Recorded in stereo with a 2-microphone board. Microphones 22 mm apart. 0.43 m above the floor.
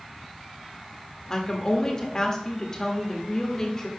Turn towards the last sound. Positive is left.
turn(degrees=25)  # may be behind; listen again after turning